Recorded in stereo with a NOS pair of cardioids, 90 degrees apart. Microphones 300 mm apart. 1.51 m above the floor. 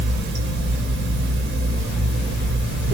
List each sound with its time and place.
0.0 s running water: 40° right, 1.1 m